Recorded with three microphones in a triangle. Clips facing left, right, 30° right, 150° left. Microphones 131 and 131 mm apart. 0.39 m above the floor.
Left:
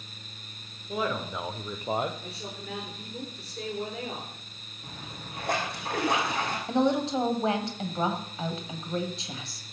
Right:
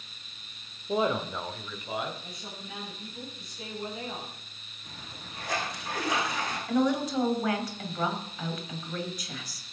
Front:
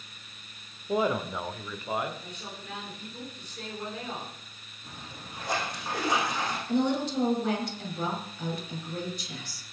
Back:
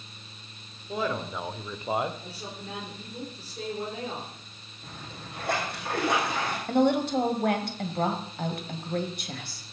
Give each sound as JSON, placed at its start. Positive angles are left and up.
{"t": 0.9, "sound": "a man speaking", "azimuth_deg": -70, "distance_m": 1.0}
{"t": 2.2, "sound": "a woman speaking", "azimuth_deg": 95, "distance_m": 7.0}
{"t": 4.8, "sound": "a splash", "azimuth_deg": 120, "distance_m": 5.0}
{"t": 6.7, "sound": "a woman speaking", "azimuth_deg": 150, "distance_m": 2.0}